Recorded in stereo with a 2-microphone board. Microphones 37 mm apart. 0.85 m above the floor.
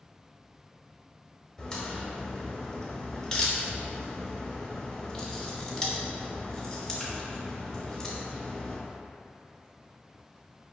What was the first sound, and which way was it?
A crack, 25° left (ahead or behind).